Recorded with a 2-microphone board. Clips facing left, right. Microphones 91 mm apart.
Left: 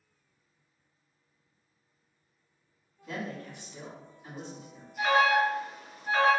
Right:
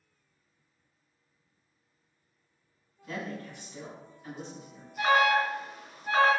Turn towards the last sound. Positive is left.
turn(degrees=-25)  # may be behind; listen again after turning